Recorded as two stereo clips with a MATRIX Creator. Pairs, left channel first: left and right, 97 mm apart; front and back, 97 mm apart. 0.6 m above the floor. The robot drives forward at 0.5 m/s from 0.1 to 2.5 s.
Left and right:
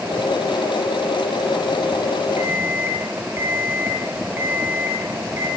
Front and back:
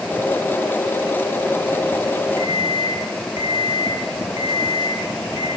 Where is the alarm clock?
25° right, 3 m.